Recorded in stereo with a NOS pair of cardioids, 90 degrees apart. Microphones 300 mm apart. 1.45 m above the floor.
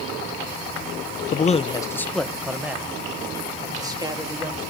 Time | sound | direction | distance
1.3 | a man speaking | 30° left | 0.8 m